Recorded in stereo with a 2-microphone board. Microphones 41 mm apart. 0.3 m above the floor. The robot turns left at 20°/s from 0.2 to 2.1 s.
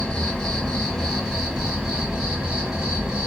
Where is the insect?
20° left, 1.5 m; by 3.3 s 15° right, 1.5 m.